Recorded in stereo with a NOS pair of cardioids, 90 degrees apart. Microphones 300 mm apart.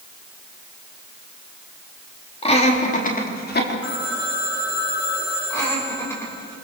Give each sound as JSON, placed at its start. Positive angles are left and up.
{"t": 2.4, "sound": "laughter", "azimuth_deg": 20, "distance_m": 3.5}
{"t": 3.8, "sound": "a phone ringing", "azimuth_deg": 55, "distance_m": 8.5}
{"t": 5.5, "sound": "laughter", "azimuth_deg": 10, "distance_m": 6.5}